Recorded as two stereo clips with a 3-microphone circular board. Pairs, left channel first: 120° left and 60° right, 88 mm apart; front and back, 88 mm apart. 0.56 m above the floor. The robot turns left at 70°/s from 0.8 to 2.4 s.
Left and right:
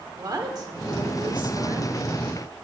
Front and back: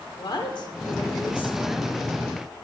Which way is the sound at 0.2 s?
25° right.